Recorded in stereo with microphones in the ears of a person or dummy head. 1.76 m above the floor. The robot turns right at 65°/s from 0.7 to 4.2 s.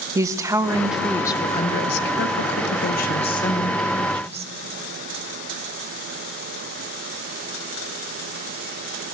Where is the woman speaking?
15° right, 0.6 m; by 4.5 s 150° right, 0.6 m.